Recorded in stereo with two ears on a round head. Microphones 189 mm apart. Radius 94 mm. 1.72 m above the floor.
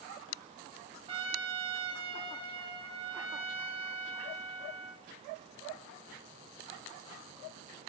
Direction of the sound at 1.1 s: 25° right (ahead or behind).